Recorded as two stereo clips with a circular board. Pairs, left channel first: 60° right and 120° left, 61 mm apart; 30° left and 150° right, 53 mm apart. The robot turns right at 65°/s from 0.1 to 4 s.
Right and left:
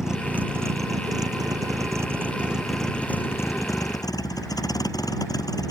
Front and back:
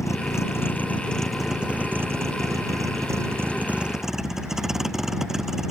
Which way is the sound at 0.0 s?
40° left.